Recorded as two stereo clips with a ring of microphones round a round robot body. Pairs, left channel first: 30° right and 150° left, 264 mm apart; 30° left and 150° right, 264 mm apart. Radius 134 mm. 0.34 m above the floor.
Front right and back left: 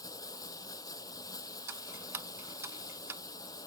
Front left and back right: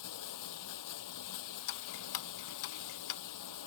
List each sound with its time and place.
0.0 s running water: 45° left
1.7 s ticking: 70° left